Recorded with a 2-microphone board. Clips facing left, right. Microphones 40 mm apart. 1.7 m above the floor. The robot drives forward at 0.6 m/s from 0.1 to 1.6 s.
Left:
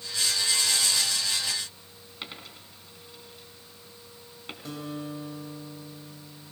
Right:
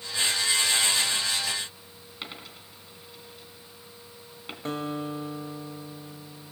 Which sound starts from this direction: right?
A guitar, at 4.7 s.